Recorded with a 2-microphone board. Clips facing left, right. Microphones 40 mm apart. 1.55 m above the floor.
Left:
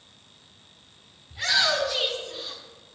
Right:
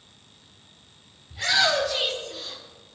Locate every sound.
1.3 s a shout: 5° left (ahead or behind), 6.5 m; by 2.6 s 20° left (ahead or behind), 5.5 m